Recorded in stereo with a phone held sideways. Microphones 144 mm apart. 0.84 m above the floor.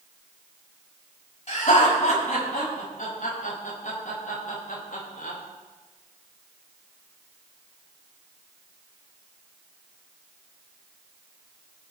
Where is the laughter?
50° left (ahead or behind), 6 m; by 5.4 s 70° left (ahead or behind), 3 m.